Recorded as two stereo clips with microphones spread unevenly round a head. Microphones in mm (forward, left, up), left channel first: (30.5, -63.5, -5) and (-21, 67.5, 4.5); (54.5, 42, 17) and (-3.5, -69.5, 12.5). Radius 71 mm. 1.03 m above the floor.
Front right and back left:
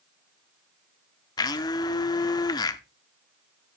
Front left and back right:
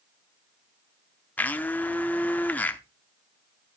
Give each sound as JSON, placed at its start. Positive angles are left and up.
{"t": 1.4, "sound": "a blender", "azimuth_deg": -10, "distance_m": 0.7}